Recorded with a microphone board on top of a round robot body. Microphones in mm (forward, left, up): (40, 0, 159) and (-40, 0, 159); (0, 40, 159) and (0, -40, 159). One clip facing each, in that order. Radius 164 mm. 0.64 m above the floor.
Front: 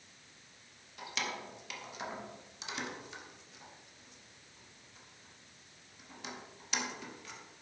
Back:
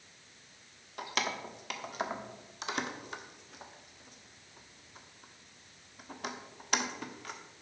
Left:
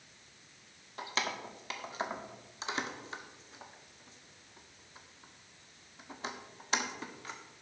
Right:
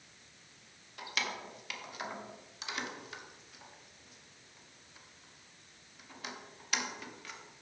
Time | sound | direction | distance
1.0 | keys jangling | 145° left | 1.6 m